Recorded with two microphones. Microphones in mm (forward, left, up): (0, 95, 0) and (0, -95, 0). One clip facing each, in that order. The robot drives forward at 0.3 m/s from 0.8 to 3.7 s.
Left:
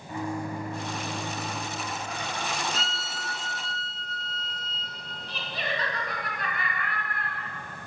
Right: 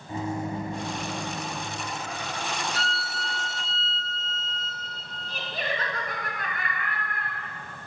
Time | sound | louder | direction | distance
0.1 | a microwave | right 2 dB | 25° right (ahead or behind) | 0.9 m
2.7 | a violin | right 2 dB | 25° left (ahead or behind) | 0.6 m
5.3 | laughter | right 2 dB | 50° right (ahead or behind) | 1.9 m